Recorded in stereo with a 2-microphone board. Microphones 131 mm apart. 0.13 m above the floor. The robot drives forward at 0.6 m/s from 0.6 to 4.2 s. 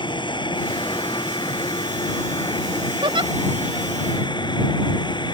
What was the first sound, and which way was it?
An aircraft, 35° left (ahead or behind).